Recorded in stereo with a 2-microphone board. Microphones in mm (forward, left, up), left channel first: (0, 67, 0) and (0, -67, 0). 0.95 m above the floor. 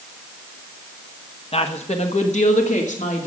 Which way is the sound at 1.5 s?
50° left (ahead or behind).